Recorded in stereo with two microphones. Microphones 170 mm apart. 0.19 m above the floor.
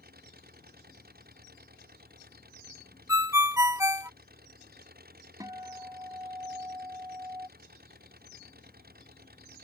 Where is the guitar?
20° right (ahead or behind).